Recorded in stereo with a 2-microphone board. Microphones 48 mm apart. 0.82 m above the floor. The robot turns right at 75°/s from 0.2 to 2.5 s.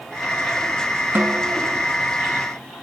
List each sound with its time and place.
1.1 s a snare drum: 60° right, 0.6 m; by 1.6 s 25° right, 0.6 m